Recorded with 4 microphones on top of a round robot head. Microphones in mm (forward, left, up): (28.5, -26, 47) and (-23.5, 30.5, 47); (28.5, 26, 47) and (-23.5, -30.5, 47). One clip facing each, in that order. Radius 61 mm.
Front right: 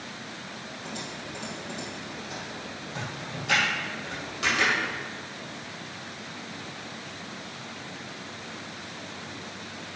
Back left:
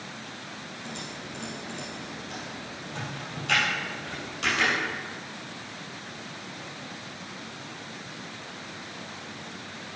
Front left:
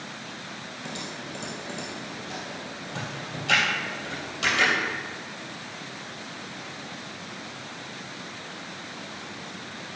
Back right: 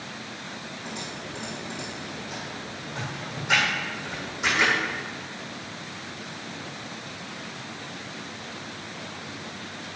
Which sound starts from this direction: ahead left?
Typing on a keyboard, at 0.8 s.